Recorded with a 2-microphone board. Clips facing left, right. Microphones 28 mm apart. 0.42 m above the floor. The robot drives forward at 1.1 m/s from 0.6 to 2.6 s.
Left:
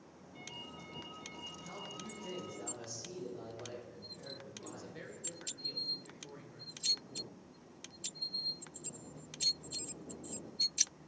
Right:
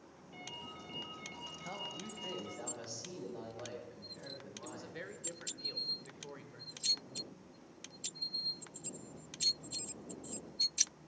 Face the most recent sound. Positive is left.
turn(degrees=-25)  # may be behind; listen again after turning